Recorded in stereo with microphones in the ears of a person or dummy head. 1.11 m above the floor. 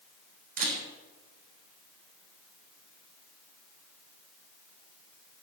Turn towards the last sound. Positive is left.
turn(degrees=-40)  # may be behind; listen again after turning